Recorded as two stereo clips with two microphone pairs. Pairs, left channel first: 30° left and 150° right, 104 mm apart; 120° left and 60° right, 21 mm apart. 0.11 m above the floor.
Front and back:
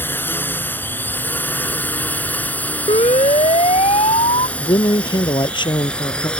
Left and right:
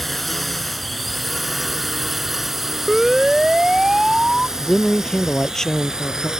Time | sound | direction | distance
0.0 | a drone | 45° left | ?
2.9 | a siren | 20° left | ?
4.6 | a man speaking | 60° left | ?